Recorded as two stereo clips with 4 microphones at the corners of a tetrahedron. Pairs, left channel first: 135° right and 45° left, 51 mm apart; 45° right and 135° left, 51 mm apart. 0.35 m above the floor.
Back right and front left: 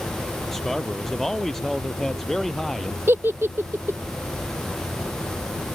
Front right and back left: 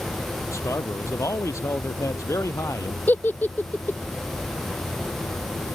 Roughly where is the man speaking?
Ahead right.